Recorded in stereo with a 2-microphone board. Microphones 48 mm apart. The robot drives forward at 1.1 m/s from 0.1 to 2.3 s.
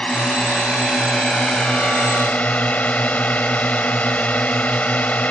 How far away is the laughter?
No laughter in this recording.